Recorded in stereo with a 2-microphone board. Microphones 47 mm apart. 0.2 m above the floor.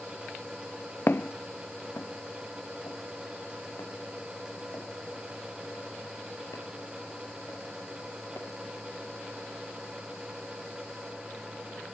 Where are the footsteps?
45° left (ahead or behind), 0.5 m; by 8.5 s 85° left, 7 m.